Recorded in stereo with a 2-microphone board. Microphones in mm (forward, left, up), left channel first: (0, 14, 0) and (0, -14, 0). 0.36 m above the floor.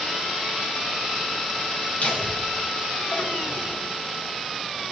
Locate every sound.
2.0 s laughter: 65° left (ahead or behind), 3.5 m